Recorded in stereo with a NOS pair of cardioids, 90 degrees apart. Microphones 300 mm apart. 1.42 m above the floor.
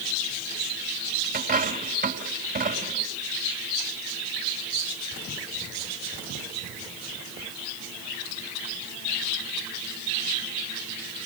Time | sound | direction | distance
1.3 | a dropped coin | 30° right | 3.5 m